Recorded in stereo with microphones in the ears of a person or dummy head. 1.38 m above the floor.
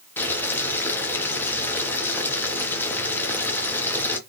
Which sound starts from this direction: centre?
Boiling, at 0.2 s.